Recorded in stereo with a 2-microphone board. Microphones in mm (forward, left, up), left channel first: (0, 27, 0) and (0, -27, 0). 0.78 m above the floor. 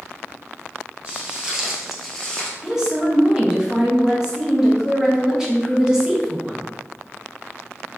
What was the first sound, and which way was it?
Footsteps, 20° right (ahead or behind).